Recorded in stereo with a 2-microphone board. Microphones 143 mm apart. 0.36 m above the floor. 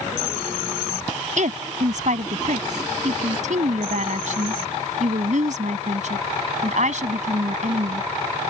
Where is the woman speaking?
65° right (ahead or behind).